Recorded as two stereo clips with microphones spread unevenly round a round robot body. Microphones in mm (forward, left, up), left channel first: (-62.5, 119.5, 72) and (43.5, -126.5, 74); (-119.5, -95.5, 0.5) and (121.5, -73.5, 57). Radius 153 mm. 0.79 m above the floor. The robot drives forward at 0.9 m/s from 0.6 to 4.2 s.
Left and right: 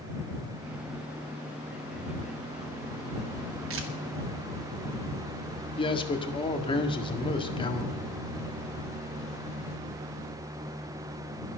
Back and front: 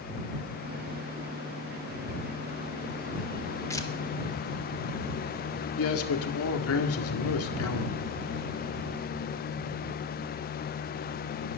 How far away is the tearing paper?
About 2.0 m.